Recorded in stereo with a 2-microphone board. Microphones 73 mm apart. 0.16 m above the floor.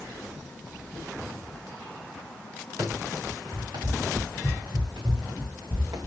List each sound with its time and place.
2.8 s running footsteps: 80° right, 5.5 m; by 6.1 s 75° right (ahead or behind), 4 m